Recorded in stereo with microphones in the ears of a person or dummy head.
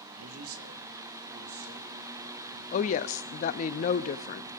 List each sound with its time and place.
0.1 s a man speaking: 85° right, 1.1 m; by 2.5 s 75° right (ahead or behind), 4.5 m
2.7 s a woman speaking: 45° left (ahead or behind), 0.6 m